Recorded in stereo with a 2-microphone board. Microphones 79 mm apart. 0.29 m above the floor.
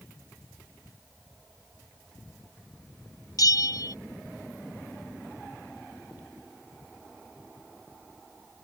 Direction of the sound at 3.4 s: 55° left (ahead or behind).